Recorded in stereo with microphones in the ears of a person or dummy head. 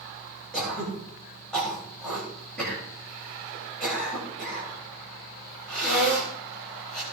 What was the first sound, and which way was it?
Throat clearing, 5° left (ahead or behind).